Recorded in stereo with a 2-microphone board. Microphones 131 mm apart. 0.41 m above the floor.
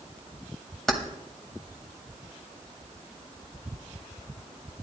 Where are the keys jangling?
5° left (ahead or behind), 1.3 m.